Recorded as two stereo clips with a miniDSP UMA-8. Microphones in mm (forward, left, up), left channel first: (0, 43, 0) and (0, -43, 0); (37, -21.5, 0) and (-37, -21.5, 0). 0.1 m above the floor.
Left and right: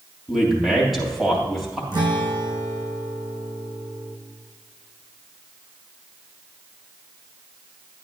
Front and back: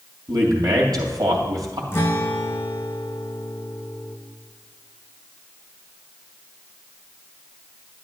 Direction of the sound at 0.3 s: Straight behind.